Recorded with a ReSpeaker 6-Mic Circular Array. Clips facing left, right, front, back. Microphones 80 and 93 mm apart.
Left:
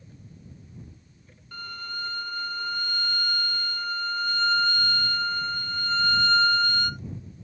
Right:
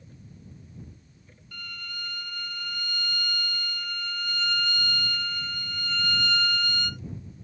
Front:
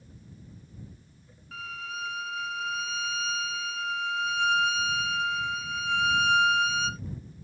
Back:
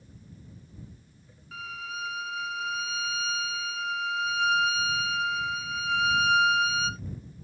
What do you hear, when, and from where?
1.5 s a violin: 95° left